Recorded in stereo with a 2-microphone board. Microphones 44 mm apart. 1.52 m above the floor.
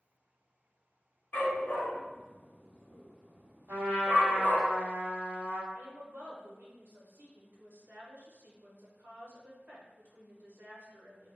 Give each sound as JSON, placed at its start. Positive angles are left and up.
{"t": 1.3, "sound": "a dog barking", "side_deg": 45, "distance_m": 1.3}
{"t": 3.7, "sound": "a trumpet", "side_deg": -50, "distance_m": 1.9}
{"t": 5.7, "sound": "a woman speaking", "side_deg": -50, "distance_m": 0.8}